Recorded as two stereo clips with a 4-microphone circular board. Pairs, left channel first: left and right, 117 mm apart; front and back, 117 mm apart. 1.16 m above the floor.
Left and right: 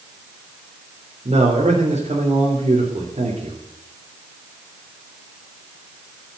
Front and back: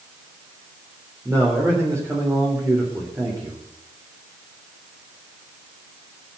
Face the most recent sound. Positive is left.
turn(degrees=-115)